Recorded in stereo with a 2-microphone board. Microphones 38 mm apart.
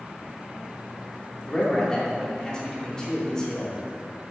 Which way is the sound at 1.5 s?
20° left (ahead or behind).